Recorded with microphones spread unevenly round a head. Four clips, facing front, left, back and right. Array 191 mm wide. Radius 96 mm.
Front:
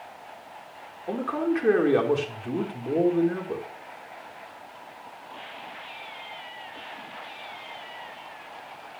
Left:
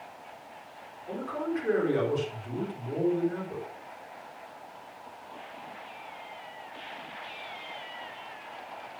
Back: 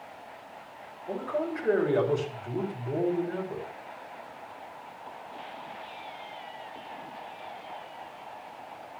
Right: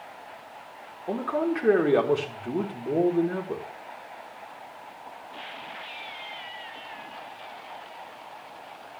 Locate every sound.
1.1 s a man speaking: 45° right, 4.5 m